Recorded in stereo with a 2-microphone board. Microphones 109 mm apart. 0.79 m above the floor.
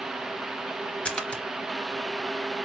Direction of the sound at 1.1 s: 10° left (ahead or behind).